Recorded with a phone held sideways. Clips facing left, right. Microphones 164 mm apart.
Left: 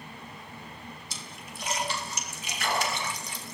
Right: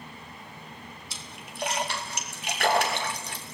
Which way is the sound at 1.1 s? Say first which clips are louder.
Even; 65° right (ahead or behind).